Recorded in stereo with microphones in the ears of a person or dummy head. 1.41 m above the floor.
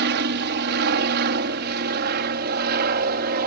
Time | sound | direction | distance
0.0 | an aircraft | 50° right (ahead or behind) | ?